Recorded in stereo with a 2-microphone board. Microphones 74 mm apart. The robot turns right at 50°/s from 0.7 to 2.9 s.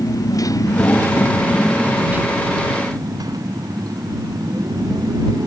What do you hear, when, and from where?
0.0 s a motorcycle: 130° left; by 5.5 s 120° right